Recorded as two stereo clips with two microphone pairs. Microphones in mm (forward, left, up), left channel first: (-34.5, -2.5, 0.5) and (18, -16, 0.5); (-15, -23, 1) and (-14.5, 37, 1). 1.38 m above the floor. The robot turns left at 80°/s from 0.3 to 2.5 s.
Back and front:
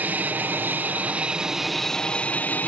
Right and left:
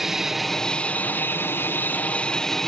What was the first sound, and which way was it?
An aircraft, 10° left.